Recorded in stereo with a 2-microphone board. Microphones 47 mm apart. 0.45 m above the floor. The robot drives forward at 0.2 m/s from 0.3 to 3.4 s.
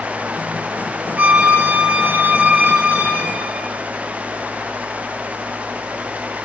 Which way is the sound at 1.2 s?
30° right (ahead or behind).